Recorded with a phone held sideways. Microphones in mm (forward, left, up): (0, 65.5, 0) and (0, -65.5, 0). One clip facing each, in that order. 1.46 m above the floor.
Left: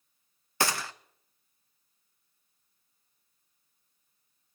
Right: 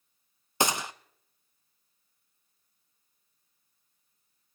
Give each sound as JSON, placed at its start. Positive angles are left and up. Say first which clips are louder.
{"t": 0.6, "sound": "a gunshot", "louder": "right 2 dB", "side_deg": -20, "distance_m": 0.5}